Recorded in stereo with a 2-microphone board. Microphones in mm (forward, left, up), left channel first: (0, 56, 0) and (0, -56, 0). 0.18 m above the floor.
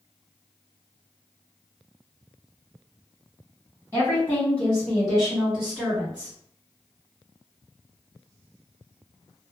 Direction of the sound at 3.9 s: 20° left (ahead or behind).